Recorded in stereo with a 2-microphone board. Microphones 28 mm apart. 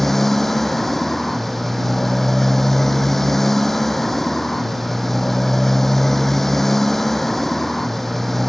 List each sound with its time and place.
0.0 s a motorcycle: 5° left (ahead or behind)